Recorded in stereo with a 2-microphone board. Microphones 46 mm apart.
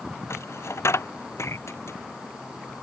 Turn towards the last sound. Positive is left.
turn(degrees=80)